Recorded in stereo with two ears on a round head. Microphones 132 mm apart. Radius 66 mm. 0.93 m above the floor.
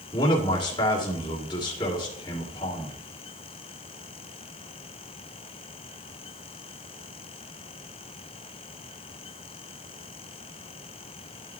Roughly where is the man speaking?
Left.